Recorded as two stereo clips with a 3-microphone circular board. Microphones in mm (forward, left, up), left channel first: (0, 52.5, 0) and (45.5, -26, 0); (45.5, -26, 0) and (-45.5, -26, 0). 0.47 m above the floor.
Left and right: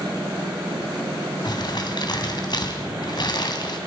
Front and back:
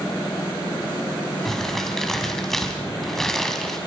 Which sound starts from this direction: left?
Crumpling, at 1.4 s.